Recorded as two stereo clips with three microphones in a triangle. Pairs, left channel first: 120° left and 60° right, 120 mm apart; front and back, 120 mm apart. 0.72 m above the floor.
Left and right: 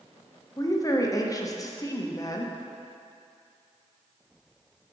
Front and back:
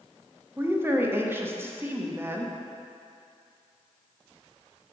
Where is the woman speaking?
130° left, 0.5 m.